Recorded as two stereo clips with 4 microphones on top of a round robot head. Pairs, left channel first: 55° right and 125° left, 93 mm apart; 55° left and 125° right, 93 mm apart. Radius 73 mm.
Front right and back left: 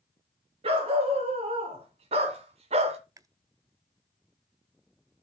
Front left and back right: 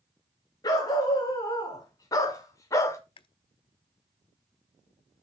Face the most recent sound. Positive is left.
turn(degrees=75)